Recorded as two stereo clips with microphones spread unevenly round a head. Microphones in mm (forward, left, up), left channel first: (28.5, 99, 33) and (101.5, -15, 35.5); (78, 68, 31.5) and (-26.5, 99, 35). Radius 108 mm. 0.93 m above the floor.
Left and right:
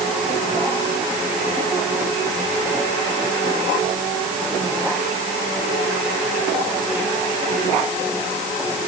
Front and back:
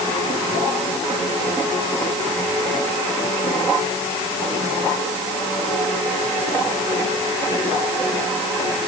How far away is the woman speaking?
No woman speaking in this recording.